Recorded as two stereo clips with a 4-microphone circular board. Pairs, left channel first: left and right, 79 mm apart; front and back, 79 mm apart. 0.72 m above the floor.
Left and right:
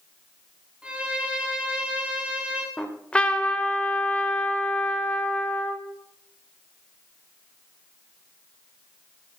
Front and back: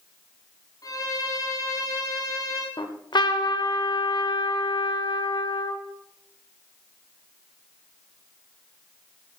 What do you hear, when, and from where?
0.8 s a violin: 15° right, 1.8 m
2.8 s a trumpet: 15° left, 1.0 m